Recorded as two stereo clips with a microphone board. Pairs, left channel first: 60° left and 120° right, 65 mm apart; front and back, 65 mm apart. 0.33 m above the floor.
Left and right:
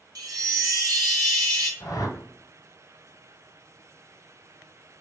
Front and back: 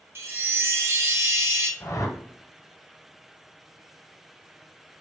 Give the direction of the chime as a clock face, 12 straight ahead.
4 o'clock.